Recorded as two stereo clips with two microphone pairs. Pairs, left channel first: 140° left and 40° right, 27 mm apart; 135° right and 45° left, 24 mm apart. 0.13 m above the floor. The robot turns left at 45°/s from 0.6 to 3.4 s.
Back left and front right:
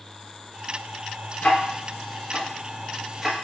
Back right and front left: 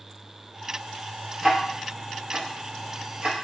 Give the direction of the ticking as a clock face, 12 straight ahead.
8 o'clock.